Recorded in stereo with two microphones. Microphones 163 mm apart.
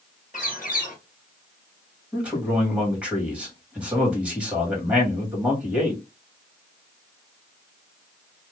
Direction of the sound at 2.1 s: 10° right (ahead or behind).